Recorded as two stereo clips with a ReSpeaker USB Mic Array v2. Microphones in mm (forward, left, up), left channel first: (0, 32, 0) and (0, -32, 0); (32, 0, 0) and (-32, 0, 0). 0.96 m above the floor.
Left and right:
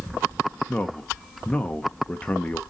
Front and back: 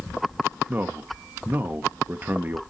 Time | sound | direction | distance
0.7 | a man speaking | 150° left | 1.0 m